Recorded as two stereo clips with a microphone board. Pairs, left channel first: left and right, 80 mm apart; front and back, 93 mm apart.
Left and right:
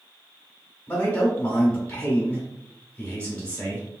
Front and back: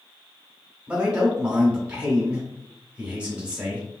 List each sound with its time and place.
0.9 s a man speaking: 125° left, 1.1 m